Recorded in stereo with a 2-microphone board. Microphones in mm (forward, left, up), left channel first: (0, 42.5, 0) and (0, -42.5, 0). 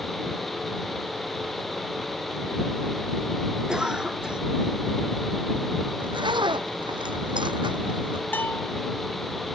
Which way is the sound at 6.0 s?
70° right (ahead or behind).